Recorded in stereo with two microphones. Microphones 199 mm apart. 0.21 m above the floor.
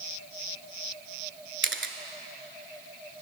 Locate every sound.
1.6 s a camera shutter: 70° right (ahead or behind), 0.6 m